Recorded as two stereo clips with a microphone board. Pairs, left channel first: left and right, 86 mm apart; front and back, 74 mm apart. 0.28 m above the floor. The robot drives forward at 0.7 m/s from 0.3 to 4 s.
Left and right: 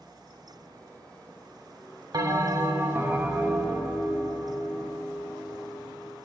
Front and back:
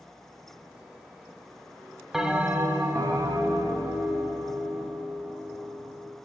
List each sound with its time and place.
2.1 s a bell: 95° right, 0.6 m; by 6.2 s 160° right, 1.5 m